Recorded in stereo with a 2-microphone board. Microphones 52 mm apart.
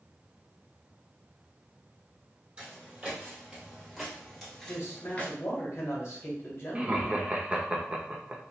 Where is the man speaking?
50° left (ahead or behind), 1.3 m.